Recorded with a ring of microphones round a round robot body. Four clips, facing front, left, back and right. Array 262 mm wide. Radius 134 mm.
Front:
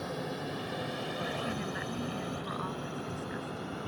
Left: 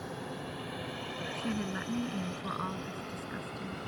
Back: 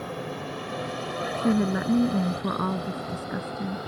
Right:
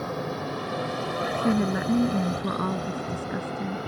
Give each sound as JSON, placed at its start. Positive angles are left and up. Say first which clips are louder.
{"t": 0.0, "sound": "a drone", "louder": "right 10 dB, back 3 dB", "azimuth_deg": -110}
{"t": 1.3, "sound": "a woman speaking", "louder": "right 11 dB, back 12 dB", "azimuth_deg": -145}